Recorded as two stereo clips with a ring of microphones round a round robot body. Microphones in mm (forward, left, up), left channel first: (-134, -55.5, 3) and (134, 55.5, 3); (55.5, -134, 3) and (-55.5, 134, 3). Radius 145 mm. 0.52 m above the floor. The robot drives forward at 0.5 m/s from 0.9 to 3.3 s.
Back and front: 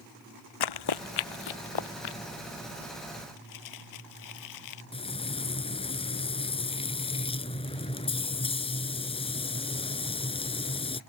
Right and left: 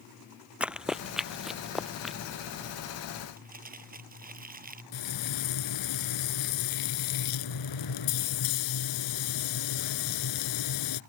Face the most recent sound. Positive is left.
turn(degrees=-85)